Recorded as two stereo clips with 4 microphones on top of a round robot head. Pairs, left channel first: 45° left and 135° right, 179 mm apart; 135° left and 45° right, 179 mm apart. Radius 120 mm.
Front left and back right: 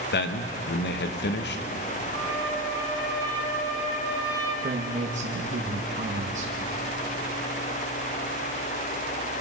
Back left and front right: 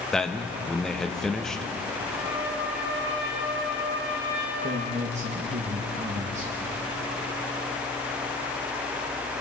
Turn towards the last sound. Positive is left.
turn(degrees=-90)